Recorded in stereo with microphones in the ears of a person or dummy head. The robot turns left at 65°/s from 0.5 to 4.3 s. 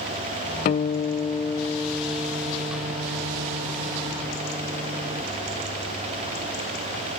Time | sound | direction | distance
0.7 | a guitar | 85° left | 0.6 m